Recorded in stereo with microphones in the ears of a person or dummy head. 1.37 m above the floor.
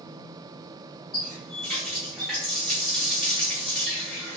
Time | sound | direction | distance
1.1 | a running tap | 5° right (ahead or behind) | 1.0 m